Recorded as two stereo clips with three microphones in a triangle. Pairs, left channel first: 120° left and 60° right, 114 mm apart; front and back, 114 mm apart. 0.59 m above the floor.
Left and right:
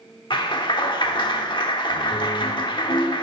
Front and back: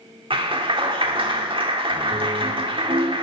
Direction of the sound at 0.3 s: 155° left.